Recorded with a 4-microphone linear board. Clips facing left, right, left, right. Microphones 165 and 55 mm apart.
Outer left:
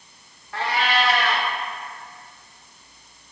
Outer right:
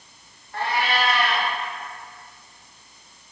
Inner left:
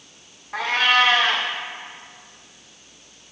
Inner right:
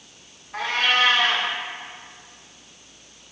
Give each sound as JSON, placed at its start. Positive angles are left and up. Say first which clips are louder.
{"t": 0.5, "sound": "a cat meowing", "louder": "outer left 1 dB, inner left 3 dB", "side_deg": 80, "distance_m": 3.5}